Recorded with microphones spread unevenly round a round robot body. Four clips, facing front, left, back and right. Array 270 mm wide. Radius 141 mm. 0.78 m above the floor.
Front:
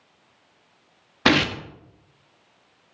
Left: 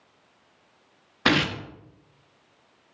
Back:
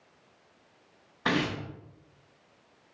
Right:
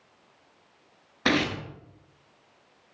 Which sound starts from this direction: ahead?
Tearing paper, at 1.2 s.